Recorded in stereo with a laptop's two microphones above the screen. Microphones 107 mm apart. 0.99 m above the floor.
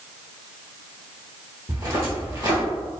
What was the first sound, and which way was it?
Footsteps, 35° right (ahead or behind).